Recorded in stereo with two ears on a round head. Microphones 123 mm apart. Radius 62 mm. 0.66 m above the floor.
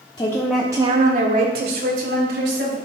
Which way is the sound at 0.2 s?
25° left (ahead or behind).